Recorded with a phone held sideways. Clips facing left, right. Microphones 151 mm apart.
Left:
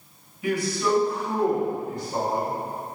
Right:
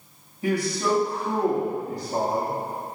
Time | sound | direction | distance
0.4 | a man speaking | 35° right (ahead or behind) | 2.5 m